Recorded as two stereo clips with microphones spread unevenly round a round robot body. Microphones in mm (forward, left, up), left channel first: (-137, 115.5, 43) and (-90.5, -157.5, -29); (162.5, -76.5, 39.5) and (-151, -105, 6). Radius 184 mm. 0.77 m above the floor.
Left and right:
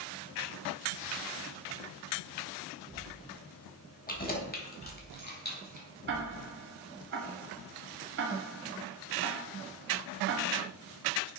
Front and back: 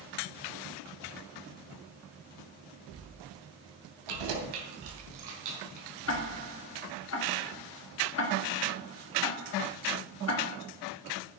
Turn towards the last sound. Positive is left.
turn(degrees=-40)